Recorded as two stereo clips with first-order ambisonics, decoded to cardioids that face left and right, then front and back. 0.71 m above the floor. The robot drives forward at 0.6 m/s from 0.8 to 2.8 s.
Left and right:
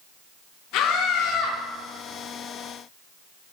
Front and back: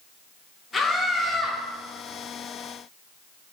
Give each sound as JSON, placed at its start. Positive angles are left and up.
{"t": 0.7, "sound": "a scream", "azimuth_deg": 80, "distance_m": 1.7}